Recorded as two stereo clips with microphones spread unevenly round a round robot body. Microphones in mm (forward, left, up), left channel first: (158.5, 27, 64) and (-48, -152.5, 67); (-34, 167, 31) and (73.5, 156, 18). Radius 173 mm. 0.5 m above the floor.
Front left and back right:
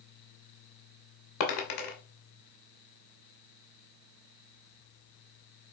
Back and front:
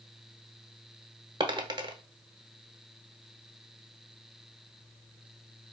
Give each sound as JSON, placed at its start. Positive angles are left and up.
{"t": 1.4, "sound": "a dropped coin", "azimuth_deg": 40, "distance_m": 1.0}